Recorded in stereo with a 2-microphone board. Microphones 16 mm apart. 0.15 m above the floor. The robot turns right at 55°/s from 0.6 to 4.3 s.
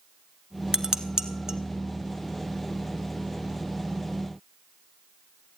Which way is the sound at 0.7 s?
45° right (ahead or behind).